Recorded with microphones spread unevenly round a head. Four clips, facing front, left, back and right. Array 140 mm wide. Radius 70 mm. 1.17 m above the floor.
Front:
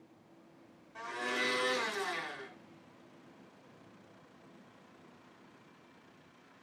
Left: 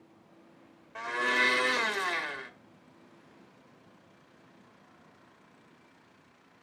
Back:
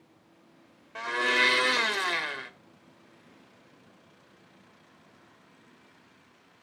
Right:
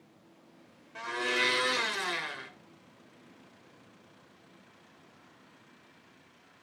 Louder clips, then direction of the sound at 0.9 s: Left 2 dB, back 10 dB; 175° left.